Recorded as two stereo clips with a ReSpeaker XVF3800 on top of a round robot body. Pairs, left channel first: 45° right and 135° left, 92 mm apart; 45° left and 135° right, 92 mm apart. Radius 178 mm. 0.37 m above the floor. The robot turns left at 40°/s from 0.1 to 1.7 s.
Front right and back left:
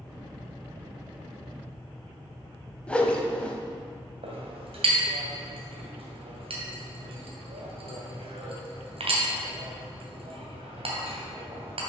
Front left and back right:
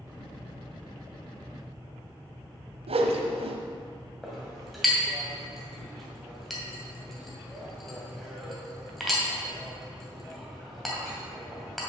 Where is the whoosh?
125° right, 0.8 m.